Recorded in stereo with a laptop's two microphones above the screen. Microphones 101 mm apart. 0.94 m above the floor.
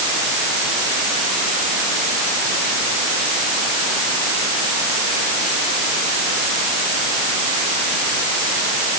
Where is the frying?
No frying in this recording.